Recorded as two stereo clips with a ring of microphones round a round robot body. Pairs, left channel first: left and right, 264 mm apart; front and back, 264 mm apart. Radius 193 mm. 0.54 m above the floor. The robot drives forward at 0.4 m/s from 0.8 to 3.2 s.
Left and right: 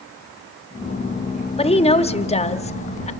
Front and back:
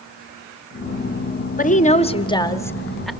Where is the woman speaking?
35° left, 1.3 m; by 3.1 s 90° left, 1.1 m.